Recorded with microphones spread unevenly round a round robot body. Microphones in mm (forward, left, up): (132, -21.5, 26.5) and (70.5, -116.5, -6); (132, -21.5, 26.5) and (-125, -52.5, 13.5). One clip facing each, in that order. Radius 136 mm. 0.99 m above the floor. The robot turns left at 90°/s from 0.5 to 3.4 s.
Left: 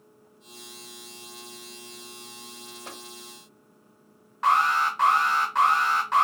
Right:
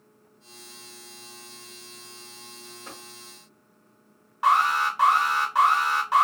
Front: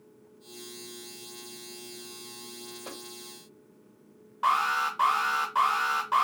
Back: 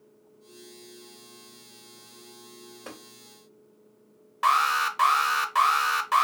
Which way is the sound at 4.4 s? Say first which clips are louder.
Right 1 dB, back 2 dB; 175° right.